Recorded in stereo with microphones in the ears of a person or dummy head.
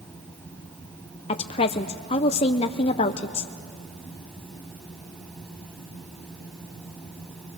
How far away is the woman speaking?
About 0.5 m.